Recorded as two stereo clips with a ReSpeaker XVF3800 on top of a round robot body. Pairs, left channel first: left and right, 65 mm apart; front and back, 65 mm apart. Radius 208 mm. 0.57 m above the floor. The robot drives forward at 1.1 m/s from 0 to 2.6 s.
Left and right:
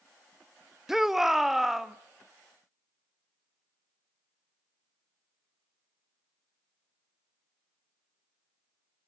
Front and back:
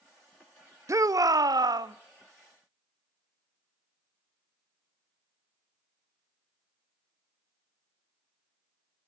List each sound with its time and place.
0.9 s a shout: 170° right, 0.9 m; by 1.9 s 175° right, 1.9 m